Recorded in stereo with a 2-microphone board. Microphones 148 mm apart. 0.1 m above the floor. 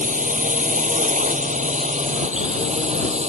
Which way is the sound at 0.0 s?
60° right (ahead or behind).